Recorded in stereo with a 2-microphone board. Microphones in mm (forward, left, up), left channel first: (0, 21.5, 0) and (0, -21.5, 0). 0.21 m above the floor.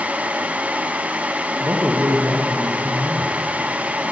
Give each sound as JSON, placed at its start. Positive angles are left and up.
{"t": 1.6, "sound": "a man speaking", "side_deg": -70, "distance_m": 5.5}